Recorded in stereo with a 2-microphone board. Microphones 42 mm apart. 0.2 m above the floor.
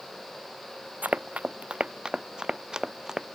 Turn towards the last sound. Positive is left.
turn(degrees=-10)  # may be behind; listen again after turning